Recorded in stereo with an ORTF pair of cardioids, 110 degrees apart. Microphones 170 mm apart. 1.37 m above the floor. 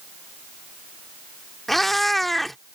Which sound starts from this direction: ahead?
A cat meowing, at 1.7 s.